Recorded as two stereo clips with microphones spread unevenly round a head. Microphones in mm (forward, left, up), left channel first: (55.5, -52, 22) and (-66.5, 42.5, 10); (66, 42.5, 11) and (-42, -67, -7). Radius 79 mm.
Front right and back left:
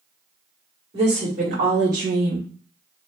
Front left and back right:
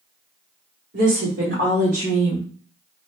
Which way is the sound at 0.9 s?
160° right.